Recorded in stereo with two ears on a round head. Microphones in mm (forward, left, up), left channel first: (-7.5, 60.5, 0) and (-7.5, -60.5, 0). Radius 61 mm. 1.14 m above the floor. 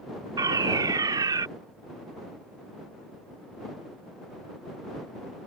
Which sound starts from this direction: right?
A fire alarm, at 0.4 s.